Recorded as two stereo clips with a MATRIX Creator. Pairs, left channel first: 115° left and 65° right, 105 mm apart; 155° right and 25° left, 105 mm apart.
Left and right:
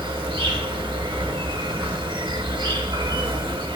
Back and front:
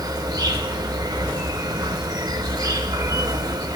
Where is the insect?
30° right, 0.7 m.